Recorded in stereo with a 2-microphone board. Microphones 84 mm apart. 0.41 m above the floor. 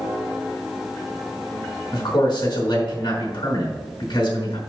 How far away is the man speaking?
About 4.5 m.